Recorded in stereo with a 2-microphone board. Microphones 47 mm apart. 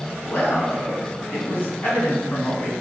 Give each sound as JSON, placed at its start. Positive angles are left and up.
{"t": 0.2, "sound": "a man speaking", "side_deg": 50, "distance_m": 1.5}